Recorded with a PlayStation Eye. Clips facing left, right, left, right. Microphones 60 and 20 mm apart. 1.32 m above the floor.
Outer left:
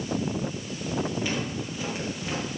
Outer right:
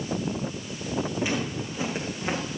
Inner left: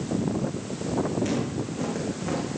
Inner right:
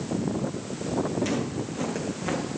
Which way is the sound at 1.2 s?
15° right (ahead or behind).